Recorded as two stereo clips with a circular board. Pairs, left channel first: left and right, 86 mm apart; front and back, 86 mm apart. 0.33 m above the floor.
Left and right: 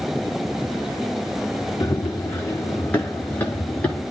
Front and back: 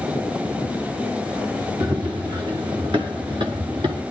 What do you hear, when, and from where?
1.8 s running footsteps: 140° left, 1.7 m; by 4.0 s 165° left, 3 m